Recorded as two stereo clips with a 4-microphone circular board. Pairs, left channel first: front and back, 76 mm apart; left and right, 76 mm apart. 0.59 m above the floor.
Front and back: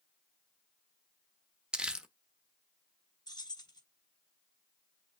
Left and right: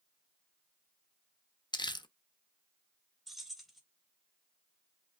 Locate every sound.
1.7 s crumpling: 100° left, 0.7 m
3.3 s keys jangling: straight ahead, 1.5 m